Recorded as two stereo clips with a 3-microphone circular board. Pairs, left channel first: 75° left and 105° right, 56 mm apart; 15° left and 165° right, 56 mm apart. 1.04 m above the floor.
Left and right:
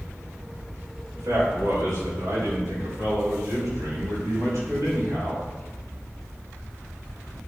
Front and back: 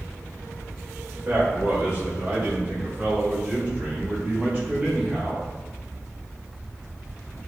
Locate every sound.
1.1 s a man speaking: 105° right, 3.5 m; by 5.5 s 95° right, 5.5 m